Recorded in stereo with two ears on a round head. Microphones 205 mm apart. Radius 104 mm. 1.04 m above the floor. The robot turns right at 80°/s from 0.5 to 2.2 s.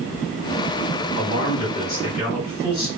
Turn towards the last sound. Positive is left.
turn(degrees=155)